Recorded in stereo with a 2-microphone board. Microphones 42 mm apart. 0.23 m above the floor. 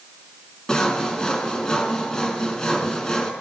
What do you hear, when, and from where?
0.7 s sawing: 20° left (ahead or behind), 1.1 m